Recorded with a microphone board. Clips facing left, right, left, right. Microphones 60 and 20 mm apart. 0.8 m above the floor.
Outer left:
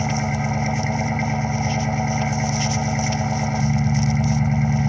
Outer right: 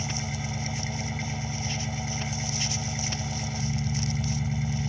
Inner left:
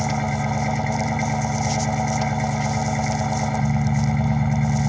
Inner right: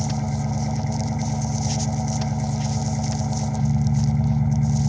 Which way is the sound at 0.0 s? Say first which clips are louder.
Outer left 11 dB, inner left 3 dB; 50° left (ahead or behind).